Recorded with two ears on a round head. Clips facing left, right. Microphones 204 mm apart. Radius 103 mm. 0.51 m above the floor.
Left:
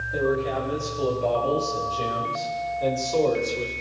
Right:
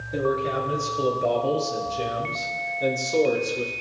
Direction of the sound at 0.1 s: 35° right (ahead or behind).